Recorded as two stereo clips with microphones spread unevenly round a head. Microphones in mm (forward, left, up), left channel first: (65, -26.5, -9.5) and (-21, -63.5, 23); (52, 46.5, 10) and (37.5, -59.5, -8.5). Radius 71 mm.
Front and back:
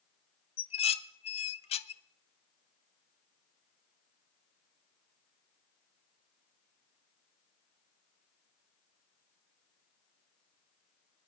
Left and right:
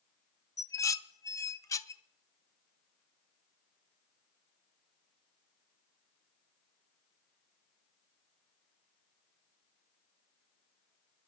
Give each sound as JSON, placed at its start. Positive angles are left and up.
{"t": 0.6, "sound": "dishes clattering", "azimuth_deg": 20, "distance_m": 0.8}